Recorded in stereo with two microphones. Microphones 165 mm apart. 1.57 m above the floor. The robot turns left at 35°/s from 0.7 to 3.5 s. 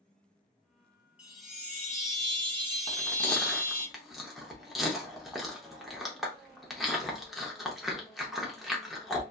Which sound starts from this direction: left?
Chewing, at 2.9 s.